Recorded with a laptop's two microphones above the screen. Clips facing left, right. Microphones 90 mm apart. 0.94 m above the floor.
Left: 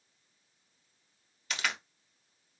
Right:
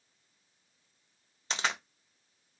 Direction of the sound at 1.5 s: 30° right (ahead or behind).